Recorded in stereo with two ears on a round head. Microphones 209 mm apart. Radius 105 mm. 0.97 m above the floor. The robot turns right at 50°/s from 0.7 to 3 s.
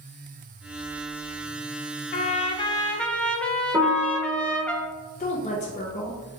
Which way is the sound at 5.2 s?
30° left (ahead or behind).